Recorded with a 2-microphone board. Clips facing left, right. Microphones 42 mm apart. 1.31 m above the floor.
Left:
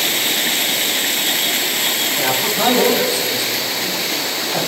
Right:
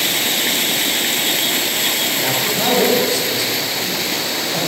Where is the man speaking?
15° left (ahead or behind), 8 m.